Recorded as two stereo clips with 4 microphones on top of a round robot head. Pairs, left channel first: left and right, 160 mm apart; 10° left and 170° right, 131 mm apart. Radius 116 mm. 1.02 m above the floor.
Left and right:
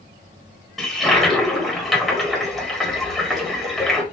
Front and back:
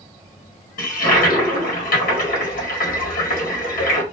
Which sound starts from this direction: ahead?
A toilet flushing, at 0.8 s.